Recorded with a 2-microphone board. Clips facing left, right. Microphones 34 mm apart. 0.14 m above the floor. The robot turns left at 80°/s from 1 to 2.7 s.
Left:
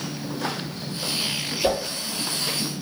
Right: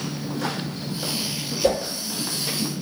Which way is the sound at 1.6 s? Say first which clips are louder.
Right 2 dB; 25° left (ahead or behind).